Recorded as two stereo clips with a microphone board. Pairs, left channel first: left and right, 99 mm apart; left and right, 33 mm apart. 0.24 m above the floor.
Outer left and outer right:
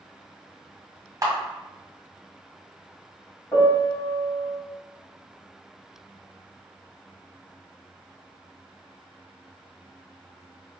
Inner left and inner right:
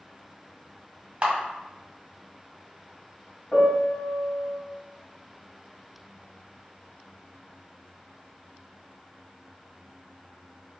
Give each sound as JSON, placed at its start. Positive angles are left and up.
{"t": 1.2, "sound": "a camera shutter", "side_deg": -30, "distance_m": 1.5}
{"t": 3.5, "sound": "a piano", "side_deg": 25, "distance_m": 1.8}